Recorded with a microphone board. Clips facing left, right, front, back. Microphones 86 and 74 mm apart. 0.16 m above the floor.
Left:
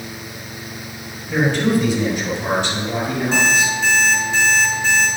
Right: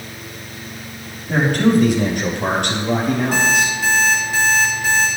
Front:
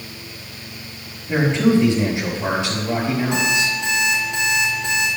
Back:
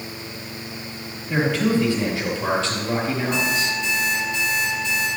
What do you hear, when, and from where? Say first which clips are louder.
1.3 s a man speaking: right 2 dB, front 4 dB; 60° right, 4.5 m; by 3.8 s 85° right, 4.5 m
3.3 s an alarm clock: even, front 2 dB; 5° right, 3.5 m